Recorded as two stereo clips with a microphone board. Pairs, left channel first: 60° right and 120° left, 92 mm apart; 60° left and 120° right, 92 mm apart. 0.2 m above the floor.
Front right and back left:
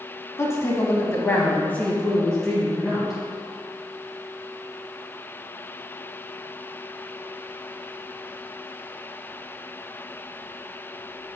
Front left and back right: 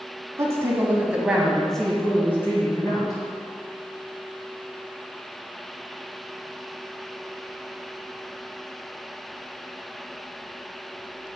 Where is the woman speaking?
90° right, 1.8 m; by 3.2 s 35° left, 2.0 m.